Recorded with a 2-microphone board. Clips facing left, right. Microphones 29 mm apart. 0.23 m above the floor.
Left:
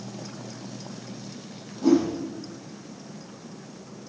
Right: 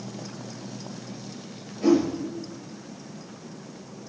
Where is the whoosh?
70° right (ahead or behind), 5 m.